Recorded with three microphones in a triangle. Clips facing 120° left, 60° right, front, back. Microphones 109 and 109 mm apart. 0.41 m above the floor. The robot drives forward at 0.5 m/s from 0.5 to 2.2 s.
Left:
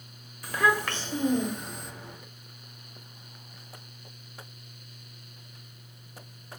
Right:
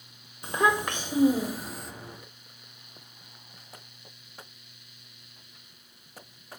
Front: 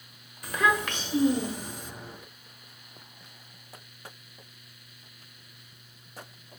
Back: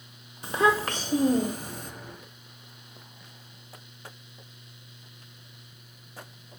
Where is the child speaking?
120° right, 0.9 m; by 1.9 s 150° right, 1.3 m.